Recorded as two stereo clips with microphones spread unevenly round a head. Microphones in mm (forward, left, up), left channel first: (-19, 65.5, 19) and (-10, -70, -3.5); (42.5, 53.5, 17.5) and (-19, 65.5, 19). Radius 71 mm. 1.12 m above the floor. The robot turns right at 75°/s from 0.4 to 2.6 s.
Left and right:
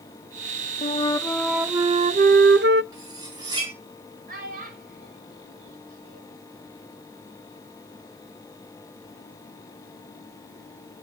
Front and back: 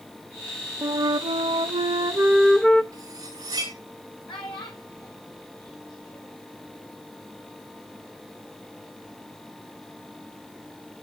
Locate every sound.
0.8 s a flute: 135° left, 0.6 m; by 2.8 s 90° right, 0.6 m
2.9 s cutlery clinking: 145° right, 8.5 m
4.3 s a child speaking: 50° right, 4.5 m